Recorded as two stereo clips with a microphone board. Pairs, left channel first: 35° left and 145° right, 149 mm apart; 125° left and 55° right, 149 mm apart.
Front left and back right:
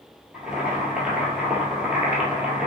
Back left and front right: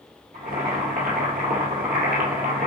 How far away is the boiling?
About 1.4 m.